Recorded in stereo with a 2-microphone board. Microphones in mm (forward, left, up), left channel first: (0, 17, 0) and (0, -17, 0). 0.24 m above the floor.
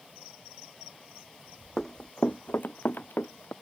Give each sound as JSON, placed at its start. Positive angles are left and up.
{"t": 1.8, "sound": "running footsteps", "side_deg": 10}